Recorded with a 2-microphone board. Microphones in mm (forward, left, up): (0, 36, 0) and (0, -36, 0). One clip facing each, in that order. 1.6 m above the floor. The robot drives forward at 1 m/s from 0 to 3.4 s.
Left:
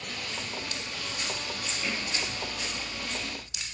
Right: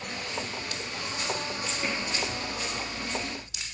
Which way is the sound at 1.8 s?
60° right (ahead or behind).